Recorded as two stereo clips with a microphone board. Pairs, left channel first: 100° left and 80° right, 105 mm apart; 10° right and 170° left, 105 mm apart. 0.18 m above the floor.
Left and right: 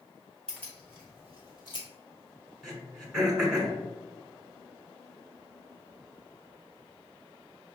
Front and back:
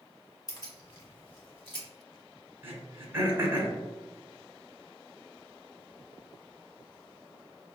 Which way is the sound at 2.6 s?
160° right.